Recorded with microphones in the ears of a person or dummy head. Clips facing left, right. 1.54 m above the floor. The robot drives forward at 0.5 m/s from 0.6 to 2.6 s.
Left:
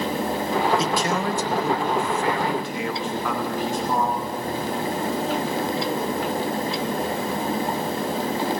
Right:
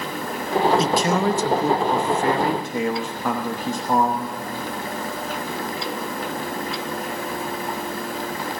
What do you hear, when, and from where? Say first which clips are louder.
0.8 s a man speaking: right 3 dB; 75° right (ahead or behind), 0.7 m; by 4.3 s 30° right (ahead or behind), 1.2 m